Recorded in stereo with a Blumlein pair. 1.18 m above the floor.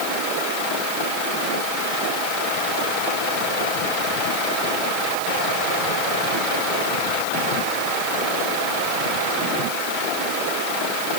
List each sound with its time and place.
Only background noise.